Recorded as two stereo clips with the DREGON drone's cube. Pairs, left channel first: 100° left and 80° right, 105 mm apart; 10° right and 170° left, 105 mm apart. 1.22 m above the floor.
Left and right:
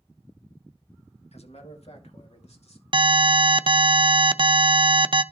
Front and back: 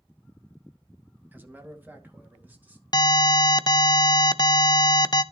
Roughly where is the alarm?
Ahead right.